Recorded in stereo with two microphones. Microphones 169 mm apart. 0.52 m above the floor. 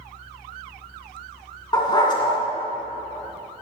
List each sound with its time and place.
1.7 s a dog barking: 25° left (ahead or behind), 2 m